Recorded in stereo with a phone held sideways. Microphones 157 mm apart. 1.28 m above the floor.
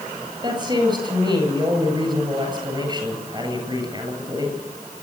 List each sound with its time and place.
0.4 s a woman speaking: 30° right (ahead or behind), 9 m